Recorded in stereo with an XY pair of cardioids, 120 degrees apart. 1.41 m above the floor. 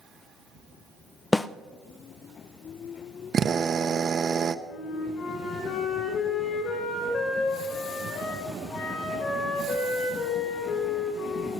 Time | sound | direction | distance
1.3 | a snare drum | 15° left | 0.5 m
3.3 | a drill | 35° right | 0.8 m
4.7 | a flute | 60° left | 5 m